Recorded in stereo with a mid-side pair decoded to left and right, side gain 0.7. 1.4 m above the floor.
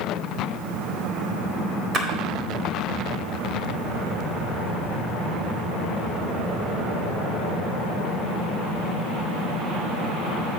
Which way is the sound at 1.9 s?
30° right.